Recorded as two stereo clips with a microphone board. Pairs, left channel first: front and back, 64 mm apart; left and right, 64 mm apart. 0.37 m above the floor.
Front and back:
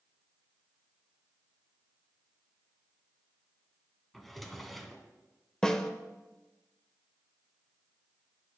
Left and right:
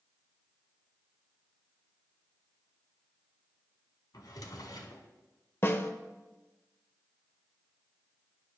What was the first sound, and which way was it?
A drawer, 85° left.